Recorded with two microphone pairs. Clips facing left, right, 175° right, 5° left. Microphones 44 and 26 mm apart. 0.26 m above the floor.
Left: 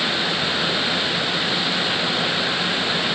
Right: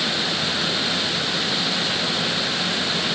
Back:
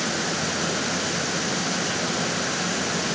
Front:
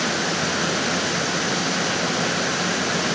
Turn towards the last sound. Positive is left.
No sound to turn to.